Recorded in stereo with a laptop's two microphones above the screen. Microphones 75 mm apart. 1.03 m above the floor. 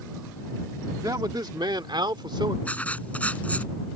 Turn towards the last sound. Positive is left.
turn(degrees=20)  # may be behind; listen again after turning